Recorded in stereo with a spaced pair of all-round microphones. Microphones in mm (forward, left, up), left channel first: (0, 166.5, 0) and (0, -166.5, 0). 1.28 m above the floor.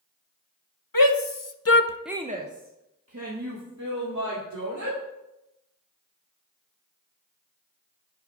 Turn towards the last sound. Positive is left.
turn(degrees=-55)  # may be behind; listen again after turning